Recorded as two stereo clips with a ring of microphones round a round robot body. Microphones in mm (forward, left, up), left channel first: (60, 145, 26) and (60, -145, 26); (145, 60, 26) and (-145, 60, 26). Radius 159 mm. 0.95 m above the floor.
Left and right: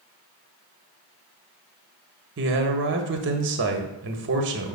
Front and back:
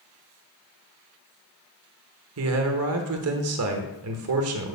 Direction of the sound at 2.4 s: 140° right.